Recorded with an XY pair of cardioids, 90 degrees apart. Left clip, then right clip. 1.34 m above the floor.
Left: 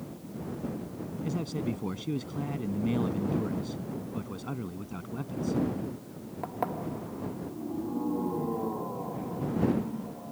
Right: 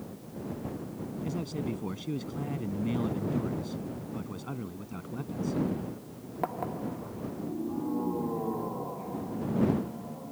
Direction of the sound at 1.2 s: 10° left.